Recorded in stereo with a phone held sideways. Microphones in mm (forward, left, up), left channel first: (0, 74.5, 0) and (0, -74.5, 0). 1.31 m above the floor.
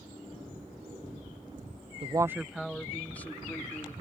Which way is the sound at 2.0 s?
40° right (ahead or behind).